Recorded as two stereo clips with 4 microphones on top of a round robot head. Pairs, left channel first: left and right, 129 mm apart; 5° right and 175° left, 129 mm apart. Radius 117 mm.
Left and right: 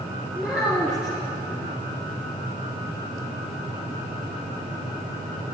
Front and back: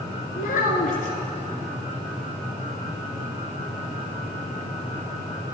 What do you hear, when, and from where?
0.3 s a child speaking: straight ahead, 1.8 m